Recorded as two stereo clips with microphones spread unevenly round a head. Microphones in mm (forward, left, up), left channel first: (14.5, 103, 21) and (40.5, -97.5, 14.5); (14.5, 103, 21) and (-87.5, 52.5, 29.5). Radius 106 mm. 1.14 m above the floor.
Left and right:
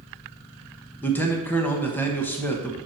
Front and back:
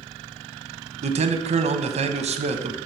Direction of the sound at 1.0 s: Straight behind.